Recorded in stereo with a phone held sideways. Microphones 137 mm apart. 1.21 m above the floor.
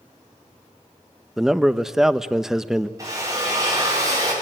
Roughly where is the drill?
Right.